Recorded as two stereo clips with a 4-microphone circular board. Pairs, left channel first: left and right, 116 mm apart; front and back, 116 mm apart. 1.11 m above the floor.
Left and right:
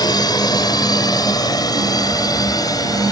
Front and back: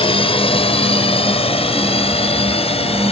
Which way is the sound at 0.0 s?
35° left.